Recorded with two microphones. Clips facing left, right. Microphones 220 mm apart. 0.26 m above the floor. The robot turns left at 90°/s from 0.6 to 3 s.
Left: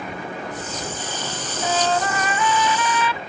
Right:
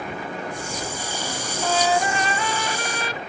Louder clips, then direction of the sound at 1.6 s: Even; 15° left.